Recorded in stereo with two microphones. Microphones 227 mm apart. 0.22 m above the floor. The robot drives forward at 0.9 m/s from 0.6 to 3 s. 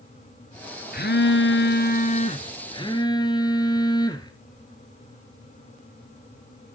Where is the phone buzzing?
45° left (ahead or behind), 0.7 m; by 4.3 s 20° left (ahead or behind), 1.6 m.